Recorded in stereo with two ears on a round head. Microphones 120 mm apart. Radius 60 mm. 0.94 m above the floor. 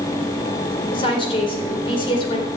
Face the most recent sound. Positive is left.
turn(degrees=40)  # may be behind; listen again after turning